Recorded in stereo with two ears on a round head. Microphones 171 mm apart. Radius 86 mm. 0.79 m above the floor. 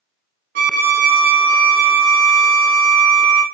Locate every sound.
0.6 s a violin: 45° right (ahead or behind), 1.1 m